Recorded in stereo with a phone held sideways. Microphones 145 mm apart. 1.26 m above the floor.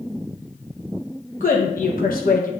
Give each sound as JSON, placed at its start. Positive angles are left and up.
{"t": 1.4, "sound": "a woman speaking", "side_deg": 65, "distance_m": 1.1}